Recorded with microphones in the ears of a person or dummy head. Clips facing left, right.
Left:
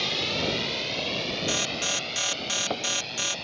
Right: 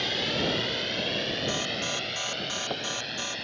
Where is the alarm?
25° left (ahead or behind).